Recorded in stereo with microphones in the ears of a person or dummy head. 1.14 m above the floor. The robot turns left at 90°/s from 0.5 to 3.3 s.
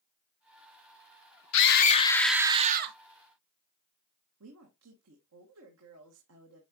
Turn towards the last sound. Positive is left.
turn(degrees=-75)  # may be behind; listen again after turning